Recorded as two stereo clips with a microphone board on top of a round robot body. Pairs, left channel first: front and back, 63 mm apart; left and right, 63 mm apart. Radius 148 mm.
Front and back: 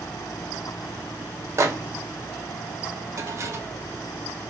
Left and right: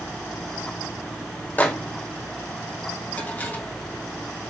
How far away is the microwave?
About 0.7 m.